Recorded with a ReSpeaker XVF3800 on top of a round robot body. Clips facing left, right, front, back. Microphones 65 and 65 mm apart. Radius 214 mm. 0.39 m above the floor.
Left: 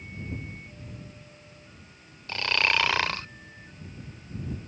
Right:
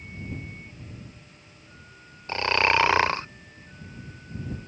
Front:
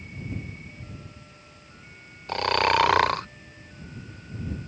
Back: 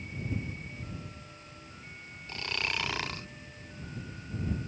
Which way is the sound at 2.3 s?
25° right.